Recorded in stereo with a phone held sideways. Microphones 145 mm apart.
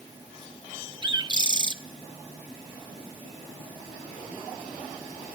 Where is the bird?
30° right (ahead or behind), 1.1 m.